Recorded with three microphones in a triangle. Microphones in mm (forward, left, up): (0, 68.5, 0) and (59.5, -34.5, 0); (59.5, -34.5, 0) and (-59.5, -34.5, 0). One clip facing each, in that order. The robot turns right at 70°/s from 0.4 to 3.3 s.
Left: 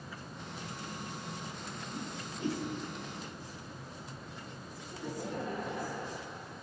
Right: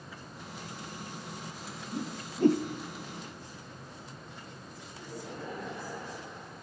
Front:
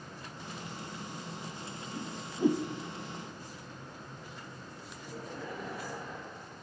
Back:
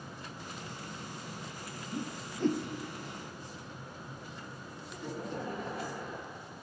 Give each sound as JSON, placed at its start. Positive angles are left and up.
{"t": 1.9, "sound": "a whoosh", "azimuth_deg": -115, "distance_m": 1.1}
{"t": 4.9, "sound": "laughter", "azimuth_deg": 150, "distance_m": 9.0}